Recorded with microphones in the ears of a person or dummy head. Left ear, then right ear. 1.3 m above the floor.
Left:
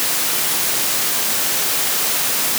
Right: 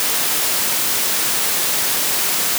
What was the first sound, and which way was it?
Only background noise.